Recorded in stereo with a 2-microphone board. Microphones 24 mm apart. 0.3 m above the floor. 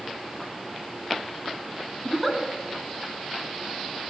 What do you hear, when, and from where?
2.0 s a giggle: centre (ahead or behind), 1.6 m